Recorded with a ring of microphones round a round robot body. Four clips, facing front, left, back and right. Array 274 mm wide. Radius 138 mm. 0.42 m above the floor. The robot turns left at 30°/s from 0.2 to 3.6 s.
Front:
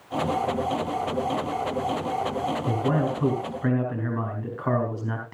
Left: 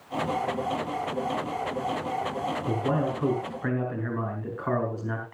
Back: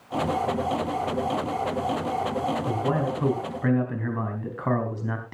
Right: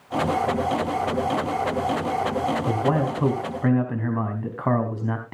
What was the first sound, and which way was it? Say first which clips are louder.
A man speaking: right 4 dB, front 1 dB; 70° right.